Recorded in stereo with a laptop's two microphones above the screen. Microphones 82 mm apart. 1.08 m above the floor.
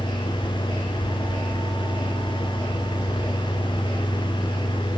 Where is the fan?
75° left (ahead or behind), 1.7 m.